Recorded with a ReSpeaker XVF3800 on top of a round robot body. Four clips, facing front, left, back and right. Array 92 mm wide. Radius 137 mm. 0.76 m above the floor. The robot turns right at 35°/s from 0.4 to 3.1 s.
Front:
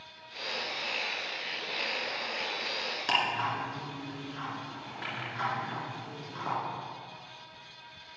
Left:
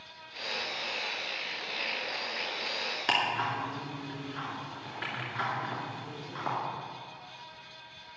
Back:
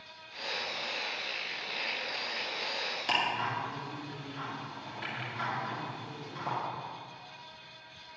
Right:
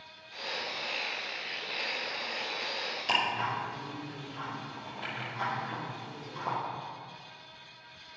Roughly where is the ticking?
Left.